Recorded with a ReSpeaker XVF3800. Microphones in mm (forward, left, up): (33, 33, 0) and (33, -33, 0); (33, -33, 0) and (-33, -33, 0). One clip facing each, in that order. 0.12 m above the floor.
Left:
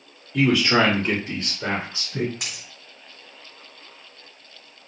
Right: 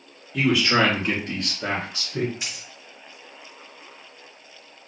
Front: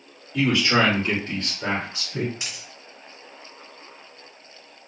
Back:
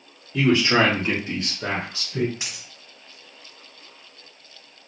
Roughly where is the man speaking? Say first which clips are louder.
Left 2 dB, back 2 dB; behind.